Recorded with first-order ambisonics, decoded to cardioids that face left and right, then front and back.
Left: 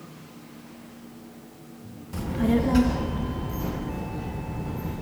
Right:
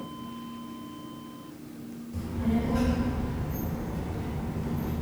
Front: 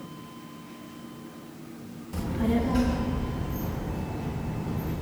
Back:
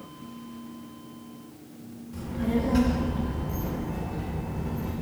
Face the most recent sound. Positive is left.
turn(degrees=155)